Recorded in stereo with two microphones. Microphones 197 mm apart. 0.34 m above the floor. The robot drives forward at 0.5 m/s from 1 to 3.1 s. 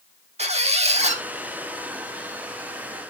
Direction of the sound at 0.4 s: 35° right (ahead or behind).